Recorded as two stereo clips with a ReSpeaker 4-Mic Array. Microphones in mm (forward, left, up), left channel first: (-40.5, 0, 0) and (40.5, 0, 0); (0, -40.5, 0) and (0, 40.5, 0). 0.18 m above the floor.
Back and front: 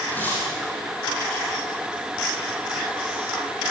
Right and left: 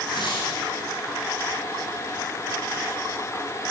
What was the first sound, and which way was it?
Tearing paper, 115° right.